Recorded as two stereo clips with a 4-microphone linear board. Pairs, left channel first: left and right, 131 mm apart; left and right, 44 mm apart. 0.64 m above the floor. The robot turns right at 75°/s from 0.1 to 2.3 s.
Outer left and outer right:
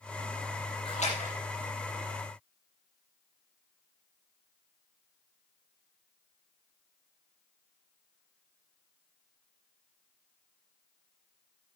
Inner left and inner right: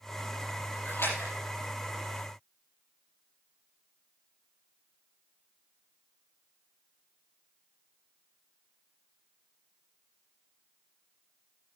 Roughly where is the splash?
Left.